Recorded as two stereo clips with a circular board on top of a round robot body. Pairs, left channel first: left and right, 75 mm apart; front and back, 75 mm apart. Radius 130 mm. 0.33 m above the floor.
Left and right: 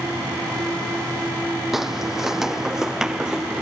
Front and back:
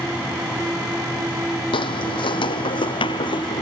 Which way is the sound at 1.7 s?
5° right.